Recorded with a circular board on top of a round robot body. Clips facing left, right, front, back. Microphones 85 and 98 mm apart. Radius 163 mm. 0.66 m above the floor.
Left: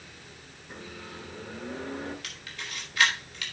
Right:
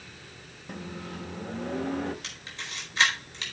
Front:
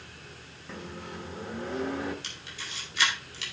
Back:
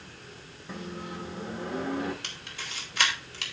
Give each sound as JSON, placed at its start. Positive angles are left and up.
{"t": 0.7, "sound": "a microwave", "azimuth_deg": -105, "distance_m": 4.0}
{"t": 2.2, "sound": "a camera shutter", "azimuth_deg": -150, "distance_m": 4.5}